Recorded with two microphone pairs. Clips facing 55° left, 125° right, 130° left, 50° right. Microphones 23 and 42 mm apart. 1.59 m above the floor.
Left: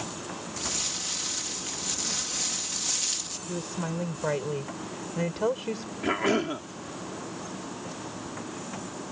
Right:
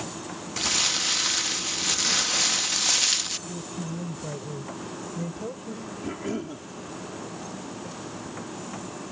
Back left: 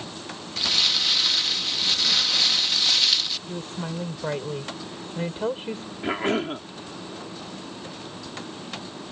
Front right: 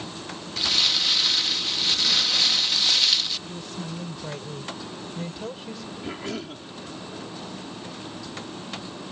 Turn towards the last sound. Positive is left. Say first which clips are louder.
# left 7 dB, back left 9 dB
turn(degrees=85)